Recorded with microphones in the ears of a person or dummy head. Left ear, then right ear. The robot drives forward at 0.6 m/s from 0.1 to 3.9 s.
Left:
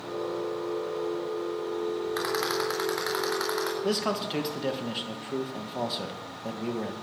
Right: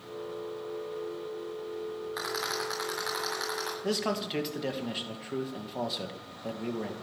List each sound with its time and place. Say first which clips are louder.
2.2 s a rattle: left 3 dB; 20° left (ahead or behind), 3 m; by 3.7 s 15° left (ahead or behind), 3.5 m
3.8 s a man speaking: left 3 dB; centre (ahead or behind), 1.7 m